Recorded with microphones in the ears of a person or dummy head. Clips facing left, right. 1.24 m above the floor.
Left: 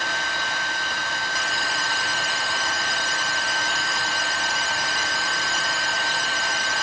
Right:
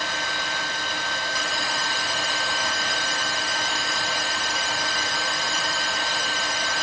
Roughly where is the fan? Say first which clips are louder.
Even; right.